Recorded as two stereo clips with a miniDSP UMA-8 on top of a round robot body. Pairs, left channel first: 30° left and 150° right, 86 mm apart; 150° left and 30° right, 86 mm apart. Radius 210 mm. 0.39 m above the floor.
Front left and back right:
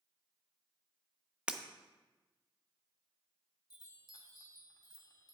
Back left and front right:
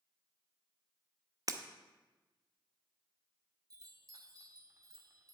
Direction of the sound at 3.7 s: 5° left.